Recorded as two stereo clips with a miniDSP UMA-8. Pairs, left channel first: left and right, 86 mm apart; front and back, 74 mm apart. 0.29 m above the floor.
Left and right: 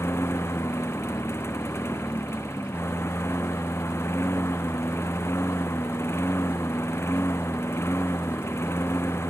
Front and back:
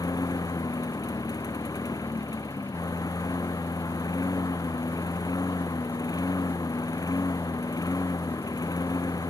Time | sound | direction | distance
0.0 | a lawn mower | 30° left | ?